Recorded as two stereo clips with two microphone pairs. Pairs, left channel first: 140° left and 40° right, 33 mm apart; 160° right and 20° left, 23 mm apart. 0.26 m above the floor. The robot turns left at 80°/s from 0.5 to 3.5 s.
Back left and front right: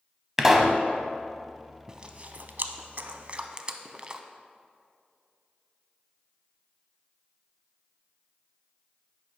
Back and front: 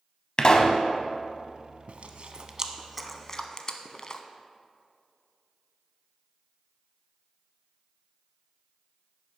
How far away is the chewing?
About 0.5 m.